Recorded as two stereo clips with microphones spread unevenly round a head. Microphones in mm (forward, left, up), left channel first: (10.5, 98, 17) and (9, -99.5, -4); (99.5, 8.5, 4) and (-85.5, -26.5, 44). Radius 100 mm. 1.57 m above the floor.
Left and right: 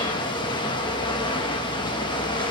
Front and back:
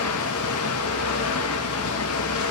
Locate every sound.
0.0 s running water: 25° left, 1.6 m